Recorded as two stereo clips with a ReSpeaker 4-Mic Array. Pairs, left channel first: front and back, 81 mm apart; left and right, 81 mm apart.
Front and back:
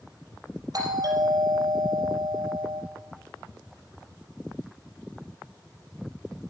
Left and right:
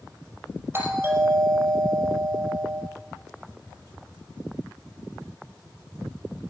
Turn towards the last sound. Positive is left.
turn(degrees=-150)